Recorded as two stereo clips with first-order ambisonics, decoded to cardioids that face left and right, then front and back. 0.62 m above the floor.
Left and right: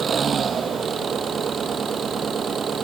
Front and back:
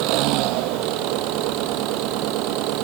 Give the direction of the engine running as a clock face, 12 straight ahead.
5 o'clock.